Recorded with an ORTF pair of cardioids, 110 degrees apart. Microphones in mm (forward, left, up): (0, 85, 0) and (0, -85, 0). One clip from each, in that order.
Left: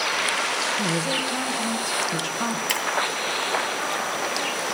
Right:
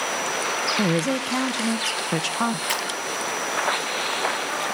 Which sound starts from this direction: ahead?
Breaking glass, at 2.7 s.